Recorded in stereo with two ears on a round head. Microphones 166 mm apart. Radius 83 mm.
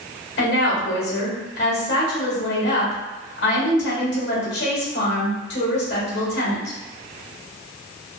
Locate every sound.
0.4 s a woman speaking: 65° left (ahead or behind), 1.3 m